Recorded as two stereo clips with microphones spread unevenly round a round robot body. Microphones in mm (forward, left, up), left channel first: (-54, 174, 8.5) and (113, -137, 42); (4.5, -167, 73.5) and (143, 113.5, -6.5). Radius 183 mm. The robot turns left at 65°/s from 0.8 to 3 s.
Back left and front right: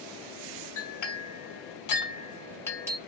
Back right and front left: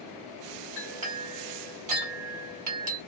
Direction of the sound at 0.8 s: 155° left.